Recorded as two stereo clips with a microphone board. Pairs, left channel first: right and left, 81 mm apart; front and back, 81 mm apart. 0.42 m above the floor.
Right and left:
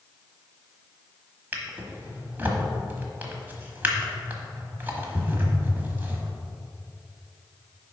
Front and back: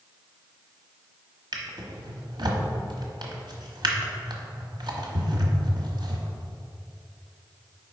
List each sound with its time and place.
1.5 s a drawer: 155° left, 1.1 m